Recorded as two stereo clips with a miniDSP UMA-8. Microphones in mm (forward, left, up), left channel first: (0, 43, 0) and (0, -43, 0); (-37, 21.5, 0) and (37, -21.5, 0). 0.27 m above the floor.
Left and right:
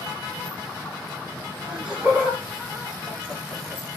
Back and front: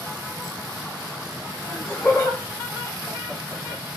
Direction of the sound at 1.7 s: 155° right.